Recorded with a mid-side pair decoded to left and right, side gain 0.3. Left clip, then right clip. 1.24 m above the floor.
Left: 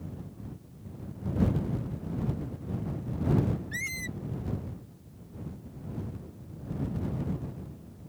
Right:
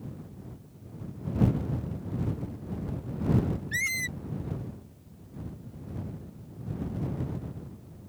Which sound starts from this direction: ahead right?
A squeak, at 3.7 s.